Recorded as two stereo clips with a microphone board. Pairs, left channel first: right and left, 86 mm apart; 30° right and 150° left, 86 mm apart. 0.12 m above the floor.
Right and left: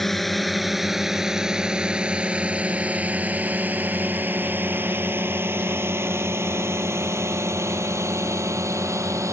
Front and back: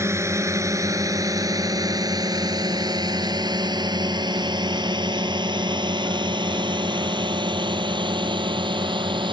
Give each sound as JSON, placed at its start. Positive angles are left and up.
{"t": 0.0, "sound": "a drone", "azimuth_deg": -175}